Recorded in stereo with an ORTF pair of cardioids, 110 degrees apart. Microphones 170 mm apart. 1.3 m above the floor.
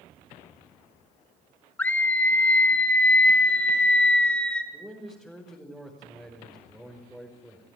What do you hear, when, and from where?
1.8 s a scream: 10° left, 2 m; by 4.6 s 5° left, 4 m
4.7 s a man speaking: 5° right, 5 m